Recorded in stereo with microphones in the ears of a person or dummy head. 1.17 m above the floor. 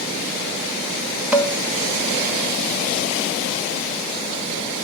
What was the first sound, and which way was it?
Dishes clattering, 5° right (ahead or behind).